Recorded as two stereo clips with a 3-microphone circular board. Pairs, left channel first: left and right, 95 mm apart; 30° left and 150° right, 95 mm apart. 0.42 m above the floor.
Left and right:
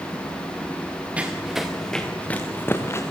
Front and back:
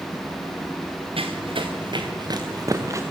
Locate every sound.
1.2 s running footsteps: 165° right, 2 m; by 3.0 s 150° left, 2.5 m